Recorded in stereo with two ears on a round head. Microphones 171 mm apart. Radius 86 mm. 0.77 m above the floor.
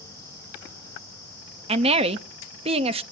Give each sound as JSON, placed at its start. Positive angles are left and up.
{"t": 1.7, "sound": "a woman speaking", "side_deg": -30, "distance_m": 0.7}